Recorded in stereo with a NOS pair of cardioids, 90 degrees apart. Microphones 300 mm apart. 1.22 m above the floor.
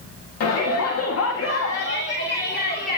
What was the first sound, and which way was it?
A shout, 70° left.